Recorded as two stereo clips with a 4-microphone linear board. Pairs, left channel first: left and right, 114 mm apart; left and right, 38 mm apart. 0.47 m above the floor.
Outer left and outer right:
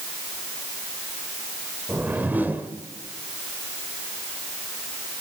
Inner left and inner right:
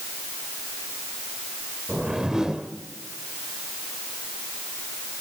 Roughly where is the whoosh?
Centre.